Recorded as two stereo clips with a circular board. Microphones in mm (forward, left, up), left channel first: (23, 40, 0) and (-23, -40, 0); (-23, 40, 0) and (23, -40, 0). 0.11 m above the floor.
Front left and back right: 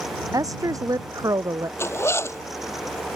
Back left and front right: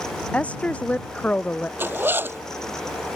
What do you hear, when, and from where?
0.3 s a woman speaking: 165° right
1.8 s a zipper: 5° left